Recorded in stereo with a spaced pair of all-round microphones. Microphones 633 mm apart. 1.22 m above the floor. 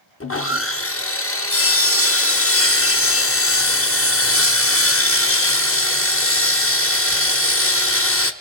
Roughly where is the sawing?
Left.